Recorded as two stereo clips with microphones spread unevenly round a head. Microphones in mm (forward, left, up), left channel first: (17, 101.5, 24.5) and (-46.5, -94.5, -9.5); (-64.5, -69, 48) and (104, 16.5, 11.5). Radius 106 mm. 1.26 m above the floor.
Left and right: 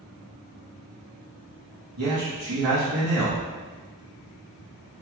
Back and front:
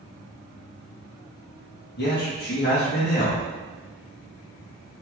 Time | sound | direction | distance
2.0 | a man speaking | 115° right | 1.9 m